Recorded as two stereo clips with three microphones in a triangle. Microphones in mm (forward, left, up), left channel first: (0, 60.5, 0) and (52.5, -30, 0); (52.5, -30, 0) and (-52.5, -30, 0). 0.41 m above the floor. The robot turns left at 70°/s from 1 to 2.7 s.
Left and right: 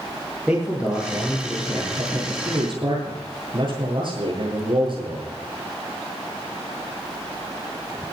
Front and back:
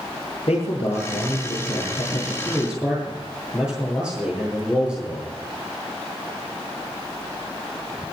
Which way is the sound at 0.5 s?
20° left.